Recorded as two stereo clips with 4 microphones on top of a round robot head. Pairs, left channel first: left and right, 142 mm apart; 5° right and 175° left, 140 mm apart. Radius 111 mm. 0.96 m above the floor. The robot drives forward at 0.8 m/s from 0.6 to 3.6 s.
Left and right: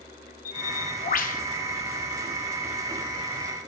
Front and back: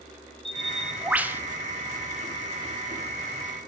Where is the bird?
80° left, 2 m; by 1.4 s 100° left, 2 m.